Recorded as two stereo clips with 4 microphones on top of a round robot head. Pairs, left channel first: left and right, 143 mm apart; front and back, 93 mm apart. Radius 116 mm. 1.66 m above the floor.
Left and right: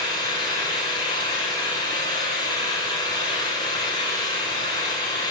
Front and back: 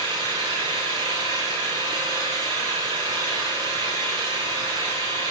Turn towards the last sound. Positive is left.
turn(degrees=150)